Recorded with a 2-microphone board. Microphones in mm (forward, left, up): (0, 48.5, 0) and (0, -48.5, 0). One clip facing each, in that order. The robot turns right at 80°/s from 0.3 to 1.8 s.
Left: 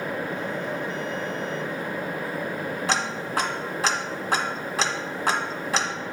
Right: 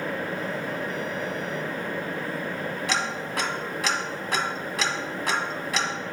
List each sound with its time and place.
2.9 s ticking: 30° left (ahead or behind), 1.1 m